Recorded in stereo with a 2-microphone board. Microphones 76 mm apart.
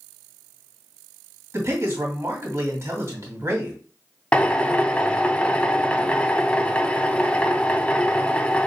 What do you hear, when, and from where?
1.5 s a man speaking: 35° right (ahead or behind), 2.5 m
4.3 s a drill: 15° left (ahead or behind), 0.5 m